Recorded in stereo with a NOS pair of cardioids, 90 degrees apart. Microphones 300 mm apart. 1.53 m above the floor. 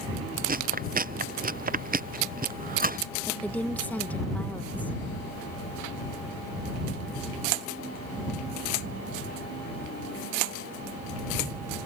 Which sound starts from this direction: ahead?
A woman speaking, at 3.3 s.